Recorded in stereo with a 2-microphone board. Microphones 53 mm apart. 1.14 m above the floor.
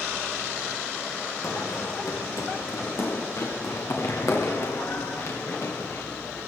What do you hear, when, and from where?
1.4 s running footsteps: 70° left (ahead or behind), 3.5 m; by 6.4 s 60° left (ahead or behind), 9 m